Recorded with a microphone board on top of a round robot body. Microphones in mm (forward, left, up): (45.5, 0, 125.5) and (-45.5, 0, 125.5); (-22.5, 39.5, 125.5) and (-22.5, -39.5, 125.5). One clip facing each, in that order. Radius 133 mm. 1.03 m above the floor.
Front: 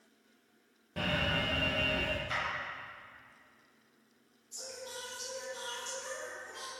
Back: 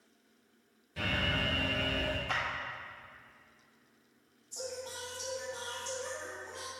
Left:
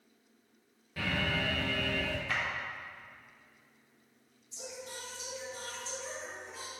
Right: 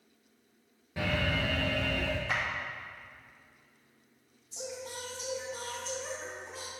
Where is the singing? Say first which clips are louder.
Back 4 dB, right 4 dB; 125° right, 2 m.